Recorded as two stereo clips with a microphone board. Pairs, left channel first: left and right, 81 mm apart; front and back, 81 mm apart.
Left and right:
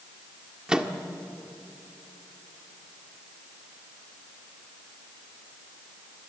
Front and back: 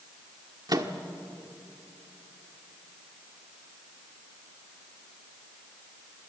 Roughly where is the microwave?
Behind.